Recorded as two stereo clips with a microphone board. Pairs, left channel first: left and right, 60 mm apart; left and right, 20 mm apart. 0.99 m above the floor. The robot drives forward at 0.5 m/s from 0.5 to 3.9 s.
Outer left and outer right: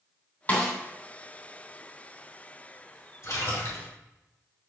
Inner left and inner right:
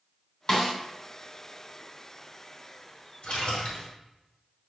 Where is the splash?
65° left (ahead or behind), 2.5 m; by 3.9 s 60° left (ahead or behind), 3 m.